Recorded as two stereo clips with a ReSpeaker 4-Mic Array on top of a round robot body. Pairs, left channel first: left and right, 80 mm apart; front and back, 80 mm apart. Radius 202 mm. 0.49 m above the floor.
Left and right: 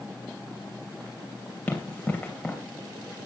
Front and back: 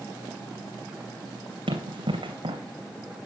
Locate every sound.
1.7 s running footsteps: 160° left, 2.5 m